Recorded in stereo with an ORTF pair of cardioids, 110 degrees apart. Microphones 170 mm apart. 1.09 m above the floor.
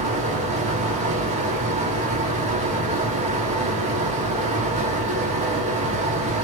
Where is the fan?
45° right, 1.3 m.